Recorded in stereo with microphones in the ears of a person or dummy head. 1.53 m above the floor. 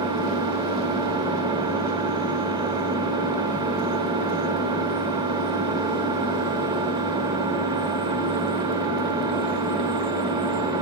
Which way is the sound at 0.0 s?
25° right (ahead or behind).